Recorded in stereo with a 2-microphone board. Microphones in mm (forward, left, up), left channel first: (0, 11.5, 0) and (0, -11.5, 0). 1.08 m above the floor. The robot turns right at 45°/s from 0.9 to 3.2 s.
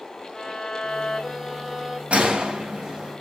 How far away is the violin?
About 3 m.